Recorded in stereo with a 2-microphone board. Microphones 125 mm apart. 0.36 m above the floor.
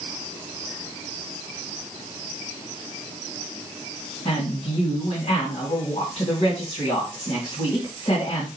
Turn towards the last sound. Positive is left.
turn(degrees=60)  # may be behind; listen again after turning